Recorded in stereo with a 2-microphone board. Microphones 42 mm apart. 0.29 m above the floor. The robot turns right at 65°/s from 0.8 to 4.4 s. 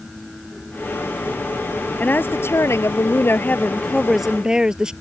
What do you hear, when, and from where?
2.0 s a woman speaking: 40° left; by 4.9 s 160° right